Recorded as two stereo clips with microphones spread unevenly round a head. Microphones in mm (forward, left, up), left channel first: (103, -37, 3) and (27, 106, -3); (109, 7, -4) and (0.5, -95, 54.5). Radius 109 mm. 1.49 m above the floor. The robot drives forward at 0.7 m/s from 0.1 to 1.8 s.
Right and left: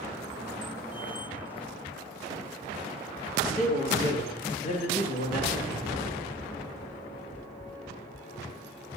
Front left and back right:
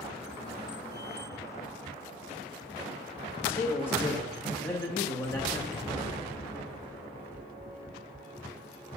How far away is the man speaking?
About 3 m.